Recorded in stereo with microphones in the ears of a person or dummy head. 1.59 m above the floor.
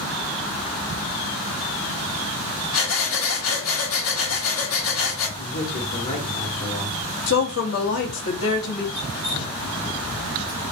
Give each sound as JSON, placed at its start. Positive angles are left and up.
{"t": 2.7, "sound": "breathing", "side_deg": 80, "distance_m": 1.4}
{"t": 5.4, "sound": "a man speaking", "side_deg": 55, "distance_m": 1.3}
{"t": 7.3, "sound": "a woman speaking", "side_deg": 75, "distance_m": 1.2}
{"t": 8.9, "sound": "dripping", "side_deg": -10, "distance_m": 2.5}